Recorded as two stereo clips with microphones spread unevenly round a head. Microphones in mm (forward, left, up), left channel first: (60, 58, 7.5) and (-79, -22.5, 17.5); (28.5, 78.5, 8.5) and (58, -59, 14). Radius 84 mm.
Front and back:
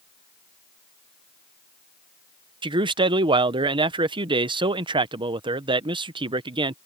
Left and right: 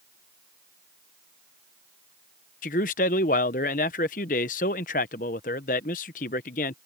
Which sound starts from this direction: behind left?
A man speaking, at 2.6 s.